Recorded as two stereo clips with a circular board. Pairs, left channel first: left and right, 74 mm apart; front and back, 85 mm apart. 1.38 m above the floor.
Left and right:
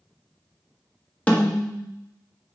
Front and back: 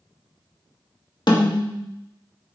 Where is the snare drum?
20° left, 1.3 m.